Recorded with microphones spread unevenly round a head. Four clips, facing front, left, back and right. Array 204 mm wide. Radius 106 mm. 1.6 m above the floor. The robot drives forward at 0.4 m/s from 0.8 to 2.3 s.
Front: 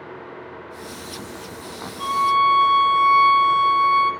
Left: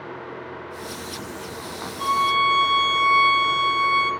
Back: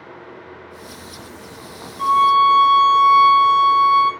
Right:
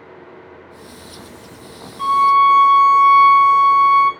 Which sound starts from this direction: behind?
A violin, at 2.0 s.